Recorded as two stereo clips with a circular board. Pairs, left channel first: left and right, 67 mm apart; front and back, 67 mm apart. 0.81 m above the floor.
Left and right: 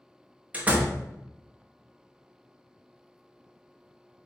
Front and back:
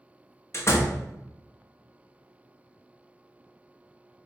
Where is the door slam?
30° right, 0.6 m.